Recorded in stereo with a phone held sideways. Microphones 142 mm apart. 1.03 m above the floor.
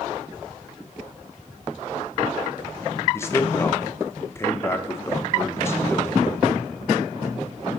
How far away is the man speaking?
About 0.9 m.